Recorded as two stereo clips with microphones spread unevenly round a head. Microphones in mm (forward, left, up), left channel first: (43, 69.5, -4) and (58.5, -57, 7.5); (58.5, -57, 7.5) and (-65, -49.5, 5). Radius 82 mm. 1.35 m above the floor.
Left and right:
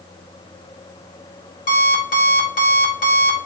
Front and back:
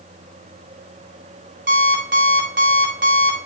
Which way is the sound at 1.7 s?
140° left.